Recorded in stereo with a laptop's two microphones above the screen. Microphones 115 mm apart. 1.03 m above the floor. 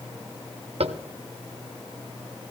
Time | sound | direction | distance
0.8 | tapping | 70° right (ahead or behind) | 0.8 m